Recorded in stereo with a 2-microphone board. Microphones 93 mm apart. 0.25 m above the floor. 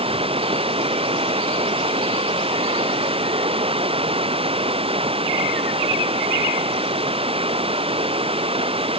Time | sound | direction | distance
0.0 | running water | 85° right | ?